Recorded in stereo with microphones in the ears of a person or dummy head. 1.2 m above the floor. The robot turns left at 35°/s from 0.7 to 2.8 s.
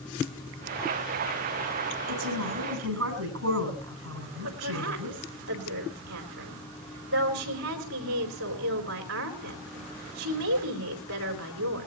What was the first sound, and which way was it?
A woman speaking, 80° right.